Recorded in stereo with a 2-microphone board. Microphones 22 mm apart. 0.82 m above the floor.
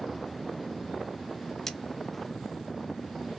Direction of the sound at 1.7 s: 25° left (ahead or behind).